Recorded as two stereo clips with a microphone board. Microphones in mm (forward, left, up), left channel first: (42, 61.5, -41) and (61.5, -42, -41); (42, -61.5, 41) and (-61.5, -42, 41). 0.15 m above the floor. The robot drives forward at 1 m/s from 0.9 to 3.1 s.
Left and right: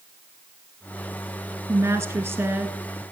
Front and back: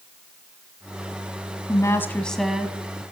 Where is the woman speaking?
35° right, 1.3 m; by 2.8 s 130° right, 1.2 m.